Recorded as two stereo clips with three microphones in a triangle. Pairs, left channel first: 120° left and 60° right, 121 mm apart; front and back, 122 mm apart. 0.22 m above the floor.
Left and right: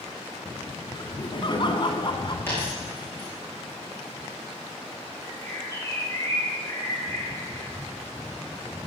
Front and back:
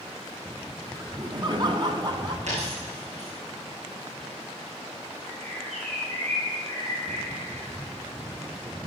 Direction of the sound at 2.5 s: 170° right.